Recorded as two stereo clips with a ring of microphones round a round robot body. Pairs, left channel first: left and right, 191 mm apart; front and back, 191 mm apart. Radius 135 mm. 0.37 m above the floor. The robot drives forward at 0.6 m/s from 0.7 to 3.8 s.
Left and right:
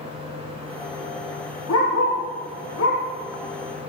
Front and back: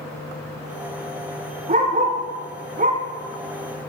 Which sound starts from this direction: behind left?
A dog barking, at 1.7 s.